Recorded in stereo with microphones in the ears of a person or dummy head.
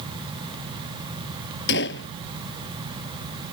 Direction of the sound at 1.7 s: 65° left (ahead or behind).